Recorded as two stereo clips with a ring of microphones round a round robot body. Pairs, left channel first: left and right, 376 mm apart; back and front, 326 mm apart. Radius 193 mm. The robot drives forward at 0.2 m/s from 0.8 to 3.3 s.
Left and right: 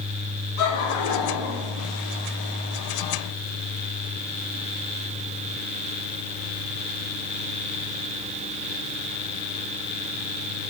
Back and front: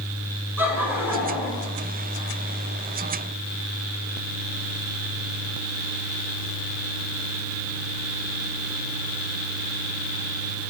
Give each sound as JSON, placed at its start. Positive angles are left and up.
{"t": 0.6, "sound": "laughter", "azimuth_deg": 85, "distance_m": 8.0}